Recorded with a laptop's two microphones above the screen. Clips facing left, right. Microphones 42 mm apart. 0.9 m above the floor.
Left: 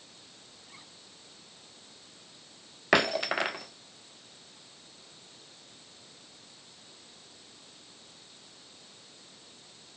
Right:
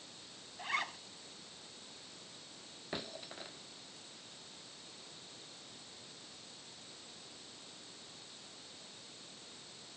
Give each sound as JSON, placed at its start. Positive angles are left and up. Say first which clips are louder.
{"t": 0.6, "sound": "a zipper", "louder": "right 19 dB", "side_deg": -80}
{"t": 2.9, "sound": "breaking glass", "louder": "left 20 dB", "side_deg": 80}